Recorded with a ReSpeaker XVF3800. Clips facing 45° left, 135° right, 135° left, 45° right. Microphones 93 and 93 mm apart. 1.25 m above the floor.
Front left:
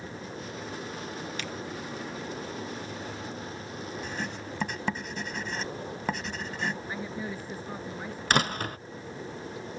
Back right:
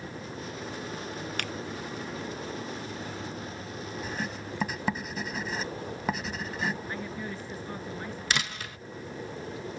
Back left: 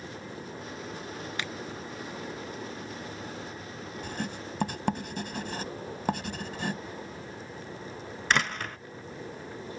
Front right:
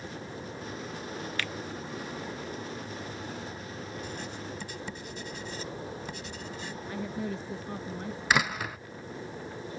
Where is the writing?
140° left.